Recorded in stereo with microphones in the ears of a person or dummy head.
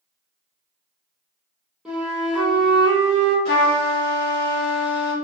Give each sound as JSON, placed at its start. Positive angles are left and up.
{"t": 1.9, "sound": "a flute", "side_deg": 0, "distance_m": 1.0}
{"t": 3.5, "sound": "a trumpet", "side_deg": 55, "distance_m": 1.3}